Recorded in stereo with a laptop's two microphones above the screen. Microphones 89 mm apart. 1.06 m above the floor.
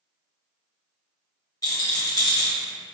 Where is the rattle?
45° left (ahead or behind), 0.6 m.